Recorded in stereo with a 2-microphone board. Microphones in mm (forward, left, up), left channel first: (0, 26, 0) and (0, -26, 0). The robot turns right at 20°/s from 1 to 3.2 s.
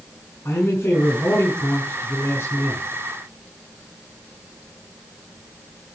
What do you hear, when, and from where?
0.5 s a man speaking: 95° left, 5.5 m; by 2.8 s 130° left, 5.5 m